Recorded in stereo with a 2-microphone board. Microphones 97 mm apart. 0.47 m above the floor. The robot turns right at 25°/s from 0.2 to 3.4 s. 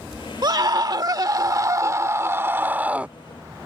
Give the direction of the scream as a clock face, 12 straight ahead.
3 o'clock.